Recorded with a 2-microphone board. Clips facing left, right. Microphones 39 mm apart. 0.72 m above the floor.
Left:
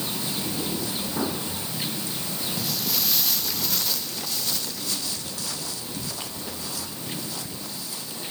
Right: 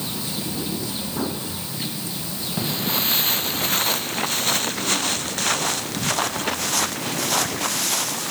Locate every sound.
2.6 s footsteps: 30° right (ahead or behind); by 8.3 s 75° right (ahead or behind)